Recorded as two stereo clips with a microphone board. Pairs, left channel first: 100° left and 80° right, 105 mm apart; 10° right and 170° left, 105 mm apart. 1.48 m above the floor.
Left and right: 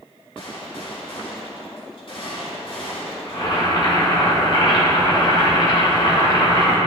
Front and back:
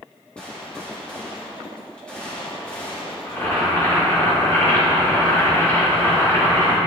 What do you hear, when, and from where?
0.4 s a gunshot: 70° left, 2 m
3.3 s boiling: 55° left, 2 m